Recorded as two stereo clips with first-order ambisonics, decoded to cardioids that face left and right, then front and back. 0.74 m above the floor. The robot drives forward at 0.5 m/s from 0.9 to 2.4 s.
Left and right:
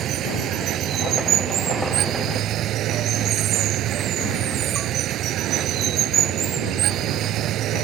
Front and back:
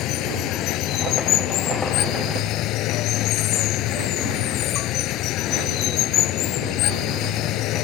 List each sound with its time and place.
0.0 s running water: 35° right; by 7.8 s 40° right